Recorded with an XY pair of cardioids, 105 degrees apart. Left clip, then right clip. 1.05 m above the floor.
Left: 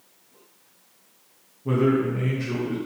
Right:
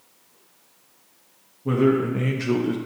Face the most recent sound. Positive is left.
turn(degrees=-70)